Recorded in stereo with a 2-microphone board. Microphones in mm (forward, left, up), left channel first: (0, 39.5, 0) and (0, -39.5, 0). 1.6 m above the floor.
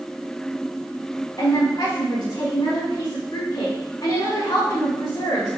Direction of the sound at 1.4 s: 60° left (ahead or behind).